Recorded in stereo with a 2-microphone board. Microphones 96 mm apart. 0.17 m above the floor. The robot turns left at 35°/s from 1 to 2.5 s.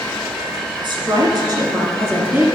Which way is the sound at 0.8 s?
110° right.